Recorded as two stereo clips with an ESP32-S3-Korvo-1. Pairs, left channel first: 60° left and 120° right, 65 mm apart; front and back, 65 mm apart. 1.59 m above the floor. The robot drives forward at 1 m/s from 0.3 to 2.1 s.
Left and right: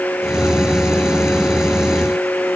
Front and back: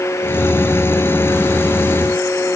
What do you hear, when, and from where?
Only background noise.